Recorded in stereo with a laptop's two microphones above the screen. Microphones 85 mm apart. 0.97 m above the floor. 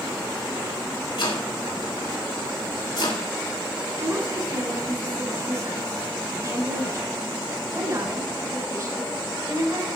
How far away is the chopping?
About 5 m.